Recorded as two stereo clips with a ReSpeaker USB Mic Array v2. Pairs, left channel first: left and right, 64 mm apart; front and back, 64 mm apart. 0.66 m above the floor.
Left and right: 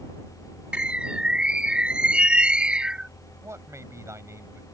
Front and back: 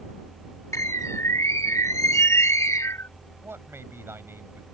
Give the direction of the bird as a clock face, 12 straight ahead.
1 o'clock.